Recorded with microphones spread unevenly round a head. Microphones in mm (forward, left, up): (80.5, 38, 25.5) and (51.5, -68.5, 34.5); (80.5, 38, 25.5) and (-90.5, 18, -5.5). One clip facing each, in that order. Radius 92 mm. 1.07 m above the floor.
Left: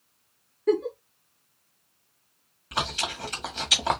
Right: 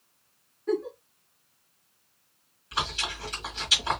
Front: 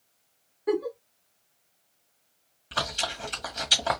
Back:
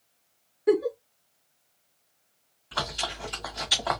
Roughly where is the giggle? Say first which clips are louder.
Left 5 dB, back 4 dB; behind left.